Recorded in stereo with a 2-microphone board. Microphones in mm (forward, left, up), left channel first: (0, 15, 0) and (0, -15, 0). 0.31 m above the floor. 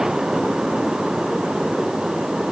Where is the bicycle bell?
I don't hear a bicycle bell.